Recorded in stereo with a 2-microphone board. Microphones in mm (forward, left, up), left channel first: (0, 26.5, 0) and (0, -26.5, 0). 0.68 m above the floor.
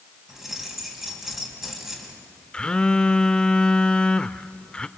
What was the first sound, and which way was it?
Keys jangling, 5° right (ahead or behind).